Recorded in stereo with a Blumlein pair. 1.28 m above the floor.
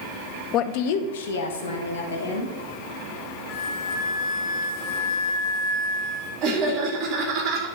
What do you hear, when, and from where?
0.5 s a woman speaking: 30° left, 0.6 m; by 2.5 s 70° left, 3 m
3.5 s a flute: 25° left, 3 m
6.4 s laughter: 35° right, 3 m